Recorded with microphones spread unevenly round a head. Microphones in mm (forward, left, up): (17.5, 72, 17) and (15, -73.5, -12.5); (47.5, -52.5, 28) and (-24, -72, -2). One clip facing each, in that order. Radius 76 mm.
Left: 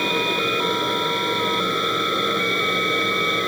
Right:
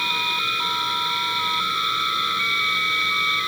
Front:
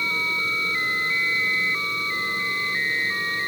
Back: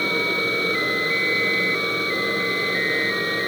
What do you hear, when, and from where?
0.0 s a fan: 140° left